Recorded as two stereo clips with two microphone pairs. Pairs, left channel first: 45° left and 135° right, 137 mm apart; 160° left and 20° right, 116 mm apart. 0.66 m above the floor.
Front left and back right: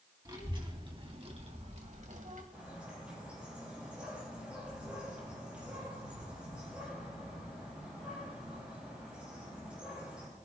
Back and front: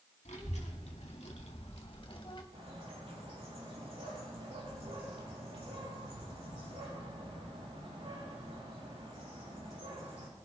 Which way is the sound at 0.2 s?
165° left.